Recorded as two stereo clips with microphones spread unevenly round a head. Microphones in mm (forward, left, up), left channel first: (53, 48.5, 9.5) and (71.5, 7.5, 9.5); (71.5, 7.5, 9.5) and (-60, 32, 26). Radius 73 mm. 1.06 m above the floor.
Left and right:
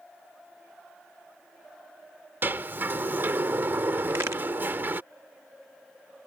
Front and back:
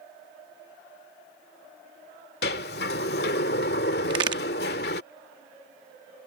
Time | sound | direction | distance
2.4 | a sliding door | 30° right | ?
4.1 | a crack | 130° right | ?